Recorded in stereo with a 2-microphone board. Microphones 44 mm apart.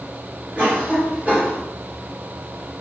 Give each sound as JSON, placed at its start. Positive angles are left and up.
{"t": 0.6, "sound": "a cough", "side_deg": -35, "distance_m": 1.6}